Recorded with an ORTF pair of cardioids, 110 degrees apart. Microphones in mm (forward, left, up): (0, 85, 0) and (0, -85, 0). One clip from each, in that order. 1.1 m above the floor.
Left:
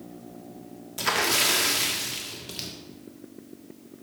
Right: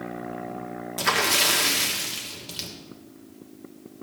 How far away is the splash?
About 1.2 m.